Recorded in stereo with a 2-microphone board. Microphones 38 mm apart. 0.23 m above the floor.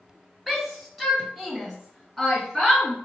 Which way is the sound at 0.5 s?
5° right (ahead or behind).